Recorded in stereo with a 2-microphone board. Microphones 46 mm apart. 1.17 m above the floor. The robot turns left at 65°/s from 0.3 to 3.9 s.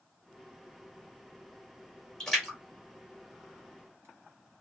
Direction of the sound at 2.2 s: 15° left (ahead or behind).